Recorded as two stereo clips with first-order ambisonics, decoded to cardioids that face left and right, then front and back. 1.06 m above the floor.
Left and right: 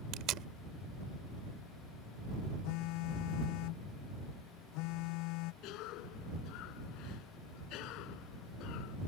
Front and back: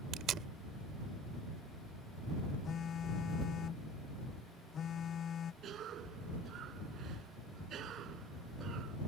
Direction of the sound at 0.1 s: 130° right.